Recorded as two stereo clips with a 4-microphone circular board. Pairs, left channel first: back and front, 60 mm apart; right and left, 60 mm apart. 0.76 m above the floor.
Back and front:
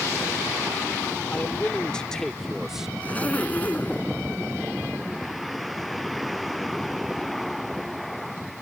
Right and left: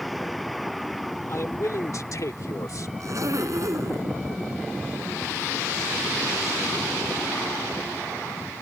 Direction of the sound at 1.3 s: 120° right.